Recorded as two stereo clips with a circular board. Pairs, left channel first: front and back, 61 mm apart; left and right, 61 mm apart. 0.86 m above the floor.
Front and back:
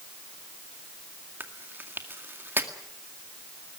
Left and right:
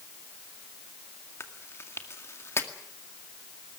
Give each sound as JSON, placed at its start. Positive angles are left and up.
{"t": 1.4, "sound": "chewing", "azimuth_deg": 130, "distance_m": 2.0}